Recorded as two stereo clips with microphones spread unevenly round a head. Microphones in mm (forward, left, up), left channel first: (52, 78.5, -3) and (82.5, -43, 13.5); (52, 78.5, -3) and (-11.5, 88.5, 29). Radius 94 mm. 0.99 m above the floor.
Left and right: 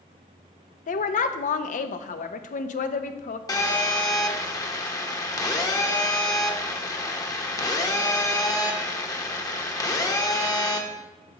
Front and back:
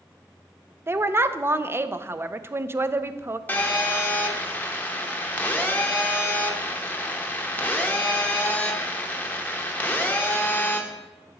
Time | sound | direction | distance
0.9 | a woman speaking | 105° left | 0.5 m
3.5 | a phone buzzing | 45° left | 1.0 m